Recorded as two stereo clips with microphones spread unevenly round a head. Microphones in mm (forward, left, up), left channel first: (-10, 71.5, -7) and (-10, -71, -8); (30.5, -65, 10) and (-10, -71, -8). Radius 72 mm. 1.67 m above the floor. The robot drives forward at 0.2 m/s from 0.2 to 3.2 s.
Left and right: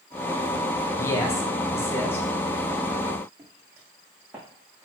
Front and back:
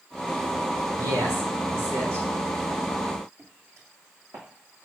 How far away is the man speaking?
About 1.7 m.